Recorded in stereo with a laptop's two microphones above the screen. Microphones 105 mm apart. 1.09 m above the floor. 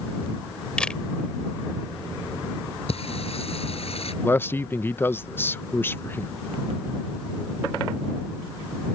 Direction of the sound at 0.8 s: 10° left (ahead or behind).